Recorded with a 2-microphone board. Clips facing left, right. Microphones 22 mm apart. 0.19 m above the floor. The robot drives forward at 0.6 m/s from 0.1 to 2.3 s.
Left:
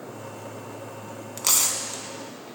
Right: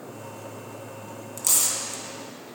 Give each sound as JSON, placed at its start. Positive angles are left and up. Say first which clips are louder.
{"t": 1.4, "sound": "tearing paper", "louder": "left 2 dB", "side_deg": 45, "distance_m": 0.7}